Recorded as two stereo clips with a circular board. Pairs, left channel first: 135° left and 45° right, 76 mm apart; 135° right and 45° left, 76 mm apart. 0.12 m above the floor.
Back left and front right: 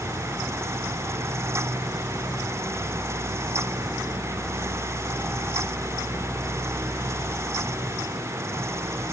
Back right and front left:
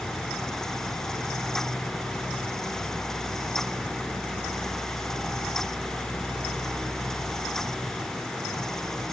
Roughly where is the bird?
No bird in this recording.